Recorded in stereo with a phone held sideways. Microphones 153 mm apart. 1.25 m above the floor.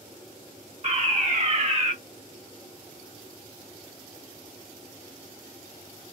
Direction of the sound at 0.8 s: 50° right (ahead or behind).